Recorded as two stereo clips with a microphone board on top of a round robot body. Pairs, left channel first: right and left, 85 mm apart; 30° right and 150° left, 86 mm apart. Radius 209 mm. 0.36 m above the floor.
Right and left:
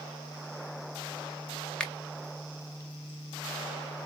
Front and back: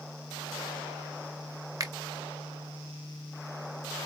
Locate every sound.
1.8 s a finger snap: 170° right, 1.0 m